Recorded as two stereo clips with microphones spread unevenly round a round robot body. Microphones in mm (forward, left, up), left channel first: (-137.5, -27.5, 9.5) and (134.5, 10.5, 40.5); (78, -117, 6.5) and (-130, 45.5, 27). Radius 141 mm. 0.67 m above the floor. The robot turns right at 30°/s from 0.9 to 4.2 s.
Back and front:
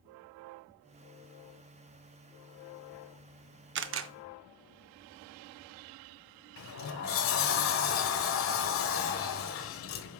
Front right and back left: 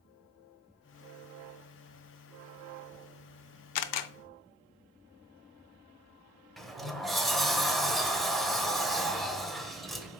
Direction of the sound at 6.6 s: 130° right.